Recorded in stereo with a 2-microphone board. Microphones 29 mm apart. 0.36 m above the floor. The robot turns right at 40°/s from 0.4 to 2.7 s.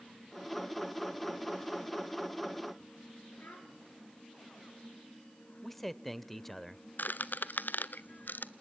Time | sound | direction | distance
3.4 | a child speaking | 80° left | 3.5 m
5.6 | a man speaking | 10° left (ahead or behind) | 1.0 m
7.0 | a squeak | 80° left | 0.8 m